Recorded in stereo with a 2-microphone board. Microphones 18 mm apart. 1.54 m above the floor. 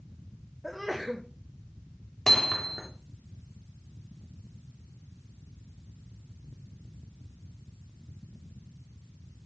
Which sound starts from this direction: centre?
A sneeze, at 0.6 s.